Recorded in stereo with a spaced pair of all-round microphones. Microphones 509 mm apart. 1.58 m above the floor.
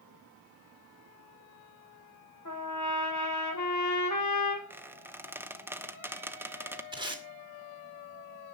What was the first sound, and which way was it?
A trumpet, 35° left (ahead or behind).